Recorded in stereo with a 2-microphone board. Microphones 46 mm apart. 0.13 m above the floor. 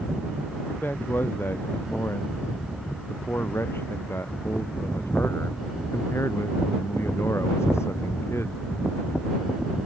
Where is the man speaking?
50° left (ahead or behind); by 8.6 s 80° left.